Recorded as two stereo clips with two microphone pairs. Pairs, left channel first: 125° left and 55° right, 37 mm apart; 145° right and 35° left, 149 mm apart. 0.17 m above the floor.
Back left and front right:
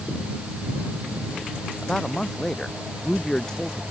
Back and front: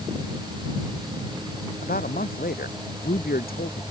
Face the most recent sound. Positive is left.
turn(degrees=-165)